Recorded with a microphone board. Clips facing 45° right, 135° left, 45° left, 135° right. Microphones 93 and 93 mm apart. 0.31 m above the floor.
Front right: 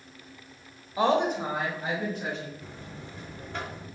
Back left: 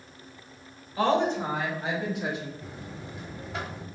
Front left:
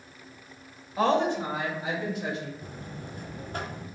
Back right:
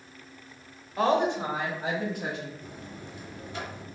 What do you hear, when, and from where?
1.0 s a woman speaking: 40° right, 0.9 m; by 2.5 s 145° right, 1.9 m
2.6 s a buzzer: 60° left, 1.0 m